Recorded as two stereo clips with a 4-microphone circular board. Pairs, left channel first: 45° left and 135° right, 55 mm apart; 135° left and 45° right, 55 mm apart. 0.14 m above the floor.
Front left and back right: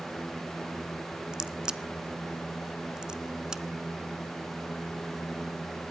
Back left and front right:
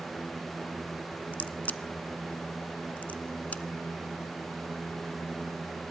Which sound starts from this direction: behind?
A crack, at 1.3 s.